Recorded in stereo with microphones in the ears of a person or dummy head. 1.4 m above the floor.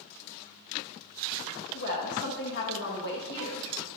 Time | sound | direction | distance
1.7 | a woman speaking | 65° left (ahead or behind) | 1.7 m